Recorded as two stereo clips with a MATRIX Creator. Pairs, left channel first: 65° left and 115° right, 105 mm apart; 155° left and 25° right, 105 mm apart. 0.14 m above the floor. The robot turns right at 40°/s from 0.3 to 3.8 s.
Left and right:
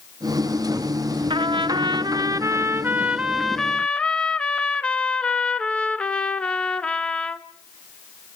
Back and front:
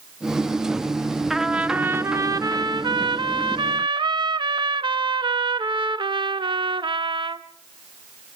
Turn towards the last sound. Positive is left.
turn(degrees=-10)